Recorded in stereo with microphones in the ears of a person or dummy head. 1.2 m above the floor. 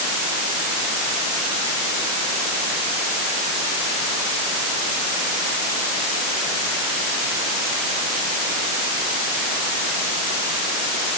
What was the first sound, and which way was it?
Only background noise.